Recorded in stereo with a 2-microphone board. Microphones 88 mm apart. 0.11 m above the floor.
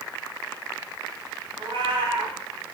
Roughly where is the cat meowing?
Right.